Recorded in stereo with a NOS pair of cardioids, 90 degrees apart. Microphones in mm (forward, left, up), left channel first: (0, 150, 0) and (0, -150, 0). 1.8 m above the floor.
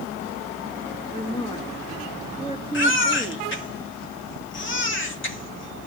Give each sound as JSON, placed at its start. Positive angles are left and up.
{"t": 1.1, "sound": "a woman speaking", "azimuth_deg": 15, "distance_m": 2.5}
{"t": 2.7, "sound": "a baby crying", "azimuth_deg": 40, "distance_m": 3.0}